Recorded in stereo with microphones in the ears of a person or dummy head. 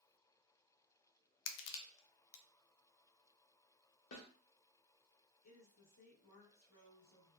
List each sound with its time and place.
1.5 s crushing: 70° left (ahead or behind), 0.5 m
4.1 s a snare drum: 70° left (ahead or behind), 1.4 m
5.4 s a woman speaking: 80° left, 1.6 m